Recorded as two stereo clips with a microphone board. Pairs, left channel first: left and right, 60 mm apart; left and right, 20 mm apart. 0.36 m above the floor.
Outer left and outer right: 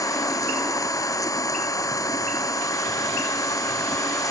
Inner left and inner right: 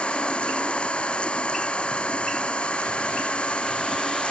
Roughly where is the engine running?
Left.